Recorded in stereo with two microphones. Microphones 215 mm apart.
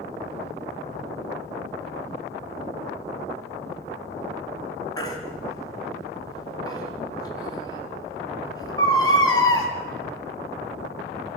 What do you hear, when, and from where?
5.0 s a baby crying: 15° left (ahead or behind), 4 m